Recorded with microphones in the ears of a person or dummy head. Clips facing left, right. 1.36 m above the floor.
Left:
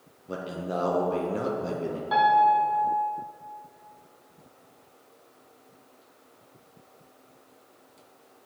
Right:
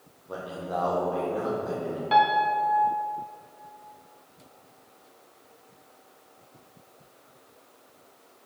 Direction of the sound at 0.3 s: 30° left (ahead or behind).